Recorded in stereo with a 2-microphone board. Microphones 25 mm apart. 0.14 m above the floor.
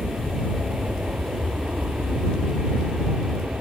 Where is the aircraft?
60° right (ahead or behind); by 3.6 s 65° right (ahead or behind).